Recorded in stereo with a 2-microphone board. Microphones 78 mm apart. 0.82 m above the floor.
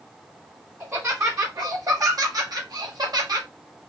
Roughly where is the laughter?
Right.